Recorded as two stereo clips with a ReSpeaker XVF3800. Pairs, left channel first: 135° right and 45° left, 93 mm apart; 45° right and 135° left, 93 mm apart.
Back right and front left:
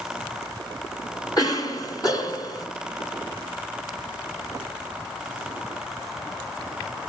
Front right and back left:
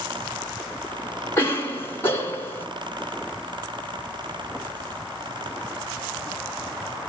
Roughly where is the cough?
Right.